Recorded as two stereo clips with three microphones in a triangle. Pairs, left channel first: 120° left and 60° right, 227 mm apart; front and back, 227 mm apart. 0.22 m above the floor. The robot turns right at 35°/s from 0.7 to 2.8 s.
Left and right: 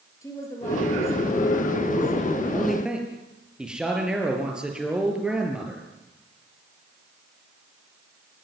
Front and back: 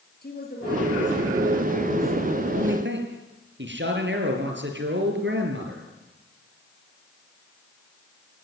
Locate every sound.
0.2 s a woman speaking: 45° left, 5 m; by 2.2 s 95° left, 5 m
2.5 s a man speaking: 155° right, 5 m; by 5.8 s 145° right, 5 m